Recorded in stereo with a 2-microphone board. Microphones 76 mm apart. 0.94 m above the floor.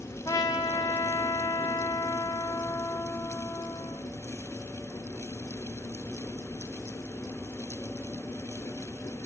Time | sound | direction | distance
0.2 | a trumpet | 50° left (ahead or behind) | 0.6 m